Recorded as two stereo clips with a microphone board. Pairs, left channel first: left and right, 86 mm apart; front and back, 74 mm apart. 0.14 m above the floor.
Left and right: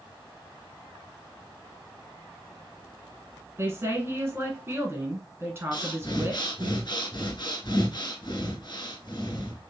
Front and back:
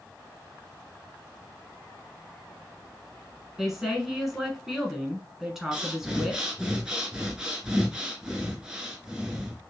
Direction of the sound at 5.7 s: 100° left.